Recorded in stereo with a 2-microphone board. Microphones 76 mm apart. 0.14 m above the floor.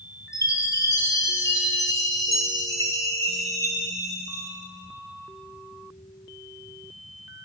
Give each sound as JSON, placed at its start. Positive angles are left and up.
{"t": 0.3, "sound": "a chime", "side_deg": 45, "distance_m": 1.1}